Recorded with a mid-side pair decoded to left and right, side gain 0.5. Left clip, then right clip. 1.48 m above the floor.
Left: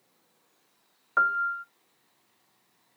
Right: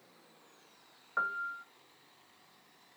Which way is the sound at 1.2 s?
45° left.